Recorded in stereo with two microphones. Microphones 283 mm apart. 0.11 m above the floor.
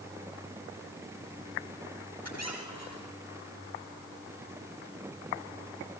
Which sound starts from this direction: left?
A squeak, at 2.2 s.